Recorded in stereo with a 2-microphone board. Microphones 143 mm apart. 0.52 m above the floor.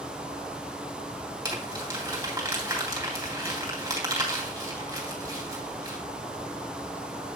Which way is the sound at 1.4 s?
25° right (ahead or behind).